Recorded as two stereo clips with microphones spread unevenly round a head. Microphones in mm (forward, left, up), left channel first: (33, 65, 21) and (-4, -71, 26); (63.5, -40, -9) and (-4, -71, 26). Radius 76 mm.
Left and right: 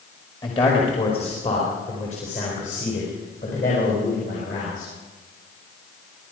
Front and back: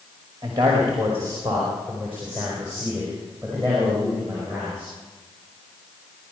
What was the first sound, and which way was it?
A man speaking, 135° left.